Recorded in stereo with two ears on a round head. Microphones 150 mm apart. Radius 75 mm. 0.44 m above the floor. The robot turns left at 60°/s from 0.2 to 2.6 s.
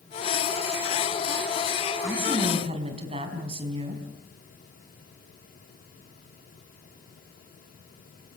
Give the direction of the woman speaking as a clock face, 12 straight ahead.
12 o'clock.